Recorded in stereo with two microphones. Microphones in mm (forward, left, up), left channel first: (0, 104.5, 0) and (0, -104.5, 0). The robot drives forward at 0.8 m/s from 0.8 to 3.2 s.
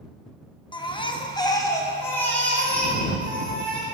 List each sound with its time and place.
0.7 s a baby crying: 25° left (ahead or behind), 0.5 m; by 3.9 s 5° left (ahead or behind), 1.8 m